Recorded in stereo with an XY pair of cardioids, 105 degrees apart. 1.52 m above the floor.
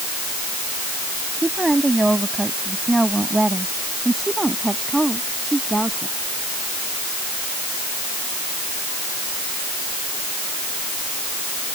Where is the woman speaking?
15° right.